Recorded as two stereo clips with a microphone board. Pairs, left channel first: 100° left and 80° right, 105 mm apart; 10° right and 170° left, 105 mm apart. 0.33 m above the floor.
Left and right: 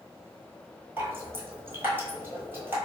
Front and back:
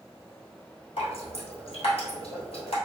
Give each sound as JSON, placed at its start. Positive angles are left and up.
{"t": 1.0, "sound": "dripping", "azimuth_deg": -10, "distance_m": 1.1}